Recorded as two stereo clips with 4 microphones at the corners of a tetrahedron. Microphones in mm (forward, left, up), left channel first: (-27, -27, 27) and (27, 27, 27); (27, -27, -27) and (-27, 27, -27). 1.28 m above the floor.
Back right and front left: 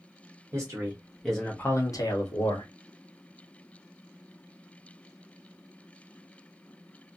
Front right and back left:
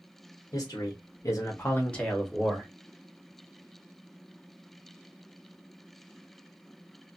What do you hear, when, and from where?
0.5 s a man speaking: 10° right, 1.0 m; by 2.7 s 140° right, 1.2 m